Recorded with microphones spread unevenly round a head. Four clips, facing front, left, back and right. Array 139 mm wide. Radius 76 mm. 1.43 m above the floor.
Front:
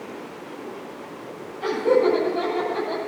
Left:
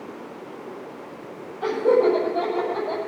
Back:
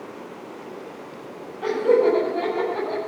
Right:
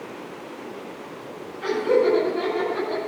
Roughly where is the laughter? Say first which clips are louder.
Left 1 dB, back 1 dB; left.